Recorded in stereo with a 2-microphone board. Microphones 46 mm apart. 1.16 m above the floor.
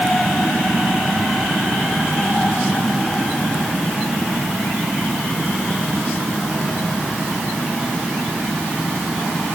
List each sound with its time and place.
Only background noise.